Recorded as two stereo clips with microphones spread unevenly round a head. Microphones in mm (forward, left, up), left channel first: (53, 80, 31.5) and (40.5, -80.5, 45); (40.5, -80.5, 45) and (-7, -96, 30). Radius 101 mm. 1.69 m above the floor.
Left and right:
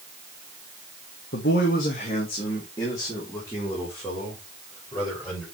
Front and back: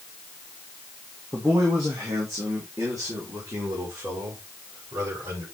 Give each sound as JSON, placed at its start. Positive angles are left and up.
{"t": 1.3, "sound": "a man speaking", "azimuth_deg": 120, "distance_m": 1.8}